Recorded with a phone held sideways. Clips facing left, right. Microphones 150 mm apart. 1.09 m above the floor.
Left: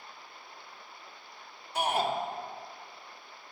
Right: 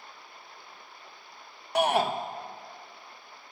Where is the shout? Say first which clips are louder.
Right 5 dB; 70° right (ahead or behind), 0.9 m.